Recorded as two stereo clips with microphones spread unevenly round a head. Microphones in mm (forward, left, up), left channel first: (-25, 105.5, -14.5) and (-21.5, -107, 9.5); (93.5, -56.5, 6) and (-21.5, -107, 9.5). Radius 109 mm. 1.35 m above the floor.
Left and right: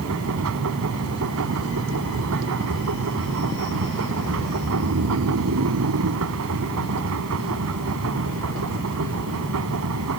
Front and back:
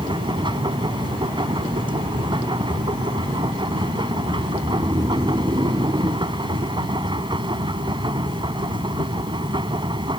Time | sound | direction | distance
0.0 | a machine running | 105° right | ?
4.6 | snoring | 90° right | ?